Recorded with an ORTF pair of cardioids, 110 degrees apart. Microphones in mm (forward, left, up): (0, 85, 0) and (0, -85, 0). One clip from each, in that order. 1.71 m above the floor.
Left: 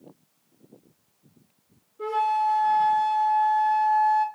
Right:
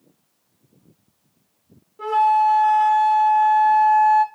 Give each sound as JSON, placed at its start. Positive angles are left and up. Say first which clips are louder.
{"t": 2.0, "sound": "a flute", "louder": "right 7 dB", "azimuth_deg": -60, "distance_m": 1.4}